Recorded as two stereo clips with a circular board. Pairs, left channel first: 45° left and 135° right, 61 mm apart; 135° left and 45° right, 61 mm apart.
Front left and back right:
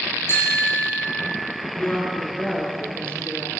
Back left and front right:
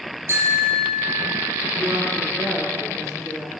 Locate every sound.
0.3 s a bicycle bell: straight ahead, 6.5 m
1.8 s a woman speaking: 20° right, 10 m